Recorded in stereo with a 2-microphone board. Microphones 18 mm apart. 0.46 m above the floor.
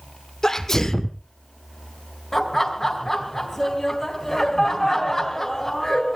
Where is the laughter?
15° left (ahead or behind), 3 m.